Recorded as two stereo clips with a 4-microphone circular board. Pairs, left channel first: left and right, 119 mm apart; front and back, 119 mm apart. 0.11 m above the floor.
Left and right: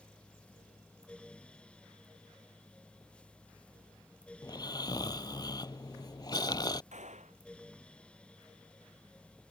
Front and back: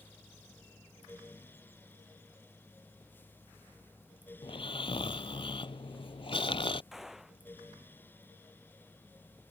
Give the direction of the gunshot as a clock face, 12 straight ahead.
3 o'clock.